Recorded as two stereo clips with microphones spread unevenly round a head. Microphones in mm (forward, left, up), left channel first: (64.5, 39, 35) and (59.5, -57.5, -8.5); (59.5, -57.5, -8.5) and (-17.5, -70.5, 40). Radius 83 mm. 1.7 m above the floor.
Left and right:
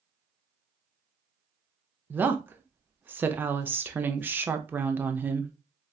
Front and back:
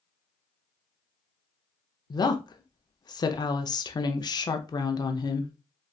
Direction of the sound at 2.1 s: 25° right.